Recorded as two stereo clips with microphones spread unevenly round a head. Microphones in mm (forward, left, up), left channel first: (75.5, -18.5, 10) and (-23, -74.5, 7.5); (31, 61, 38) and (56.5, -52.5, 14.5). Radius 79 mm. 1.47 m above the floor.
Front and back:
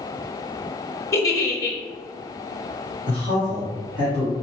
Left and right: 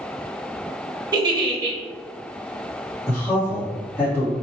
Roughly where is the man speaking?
Behind.